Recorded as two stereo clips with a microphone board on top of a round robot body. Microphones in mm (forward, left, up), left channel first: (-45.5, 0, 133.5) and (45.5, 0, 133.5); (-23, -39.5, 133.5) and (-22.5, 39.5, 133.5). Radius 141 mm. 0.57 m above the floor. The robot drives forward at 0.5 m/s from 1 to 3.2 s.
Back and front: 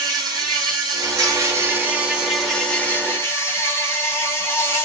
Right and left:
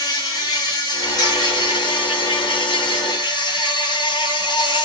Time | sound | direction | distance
0.0 | an insect | 50° right | 1.1 m